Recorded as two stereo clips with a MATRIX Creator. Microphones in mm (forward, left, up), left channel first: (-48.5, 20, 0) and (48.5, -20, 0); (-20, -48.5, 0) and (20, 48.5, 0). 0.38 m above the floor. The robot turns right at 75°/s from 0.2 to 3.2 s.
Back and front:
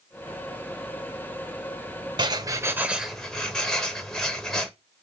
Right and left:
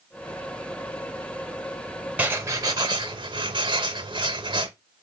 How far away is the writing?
About 0.8 m.